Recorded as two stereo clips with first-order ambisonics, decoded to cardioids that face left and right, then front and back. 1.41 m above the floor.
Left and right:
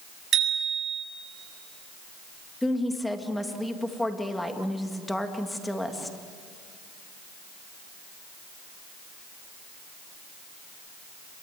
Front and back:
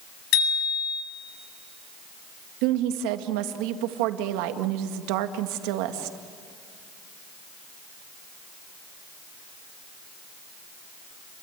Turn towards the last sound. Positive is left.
turn(degrees=175)